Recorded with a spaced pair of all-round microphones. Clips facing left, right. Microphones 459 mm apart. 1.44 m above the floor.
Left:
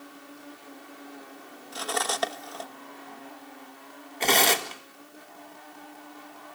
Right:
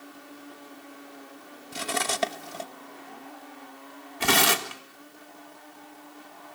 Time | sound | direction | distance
1.7 | cutlery clinking | 45° right (ahead or behind) | 0.9 m
4.2 | tearing paper | 25° right (ahead or behind) | 1.4 m